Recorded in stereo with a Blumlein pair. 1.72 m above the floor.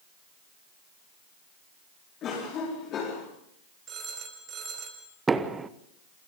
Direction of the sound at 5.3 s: 15° right.